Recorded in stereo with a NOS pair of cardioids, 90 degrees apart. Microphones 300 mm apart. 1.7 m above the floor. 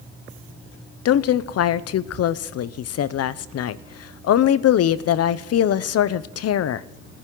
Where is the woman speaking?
60° left, 0.8 m.